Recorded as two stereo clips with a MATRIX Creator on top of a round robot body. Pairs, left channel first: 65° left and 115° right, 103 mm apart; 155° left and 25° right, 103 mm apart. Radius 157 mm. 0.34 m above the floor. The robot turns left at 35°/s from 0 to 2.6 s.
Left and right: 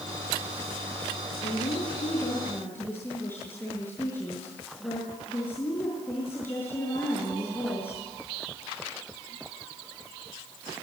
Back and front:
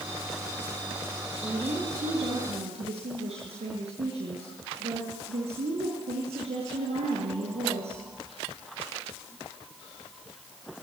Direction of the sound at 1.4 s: 40° left.